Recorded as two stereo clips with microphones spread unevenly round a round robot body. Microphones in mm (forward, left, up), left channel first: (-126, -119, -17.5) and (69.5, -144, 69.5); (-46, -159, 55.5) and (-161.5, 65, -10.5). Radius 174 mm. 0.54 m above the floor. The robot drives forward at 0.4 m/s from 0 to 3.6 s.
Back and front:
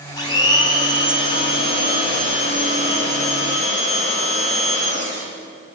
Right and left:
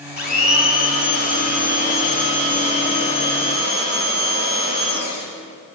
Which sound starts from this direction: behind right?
A blender, at 0.2 s.